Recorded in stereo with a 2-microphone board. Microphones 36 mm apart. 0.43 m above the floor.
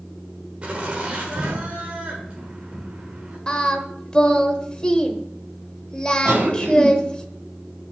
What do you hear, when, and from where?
0.6 s laughter: 35° right (ahead or behind), 1.4 m
3.5 s singing: 25° left (ahead or behind), 0.8 m
6.2 s a cough: 60° right (ahead or behind), 3 m